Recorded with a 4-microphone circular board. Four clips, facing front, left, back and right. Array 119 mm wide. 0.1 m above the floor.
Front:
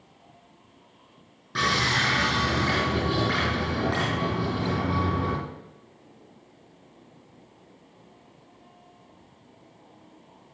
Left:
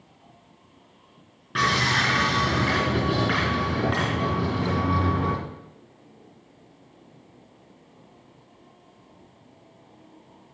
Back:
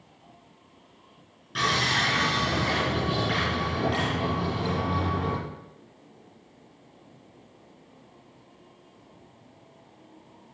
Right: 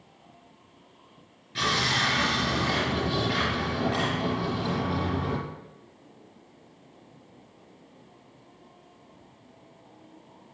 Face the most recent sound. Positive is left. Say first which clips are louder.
# left 4 dB, front 1 dB
turn(degrees=70)